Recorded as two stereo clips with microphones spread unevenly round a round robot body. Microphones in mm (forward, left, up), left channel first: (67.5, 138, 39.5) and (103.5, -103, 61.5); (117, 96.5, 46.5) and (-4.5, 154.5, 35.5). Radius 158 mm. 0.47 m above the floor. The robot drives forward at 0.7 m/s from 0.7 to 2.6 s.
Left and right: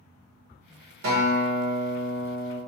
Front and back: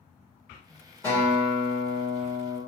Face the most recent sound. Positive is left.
turn(degrees=-140)